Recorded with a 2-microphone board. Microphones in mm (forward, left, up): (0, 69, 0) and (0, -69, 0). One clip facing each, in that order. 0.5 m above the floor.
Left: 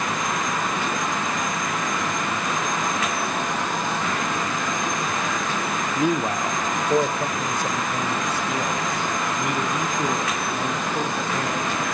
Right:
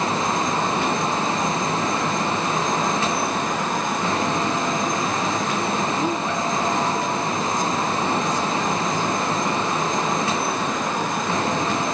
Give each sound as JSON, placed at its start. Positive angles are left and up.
{"t": 6.0, "sound": "a man speaking", "side_deg": 10, "distance_m": 0.8}